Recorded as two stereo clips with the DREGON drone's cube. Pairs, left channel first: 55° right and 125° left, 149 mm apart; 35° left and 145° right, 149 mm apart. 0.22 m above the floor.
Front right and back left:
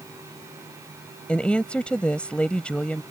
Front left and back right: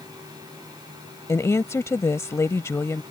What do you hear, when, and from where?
1.3 s a woman speaking: 10° left